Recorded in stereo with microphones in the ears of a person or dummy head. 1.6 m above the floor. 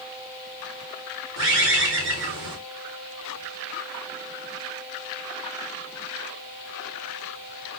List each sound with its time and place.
1.4 s a bird: 70° right (ahead or behind), 1.1 m